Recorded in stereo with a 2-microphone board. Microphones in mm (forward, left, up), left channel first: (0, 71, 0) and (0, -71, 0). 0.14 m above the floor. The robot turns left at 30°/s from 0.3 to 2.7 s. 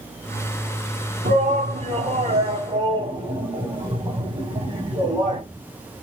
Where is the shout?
75° right (ahead or behind), 6 m; by 5.4 s 30° right (ahead or behind), 6 m.